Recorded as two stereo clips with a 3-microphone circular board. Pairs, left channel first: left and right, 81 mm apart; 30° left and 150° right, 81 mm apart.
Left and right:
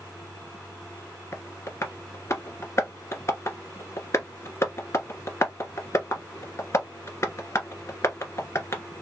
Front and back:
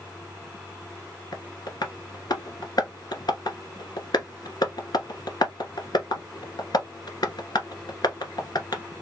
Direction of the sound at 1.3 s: 40° left.